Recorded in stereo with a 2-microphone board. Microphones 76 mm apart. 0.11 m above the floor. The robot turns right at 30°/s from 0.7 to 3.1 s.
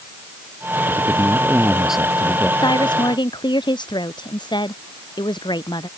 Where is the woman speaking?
80° left; by 5.9 s 85° left.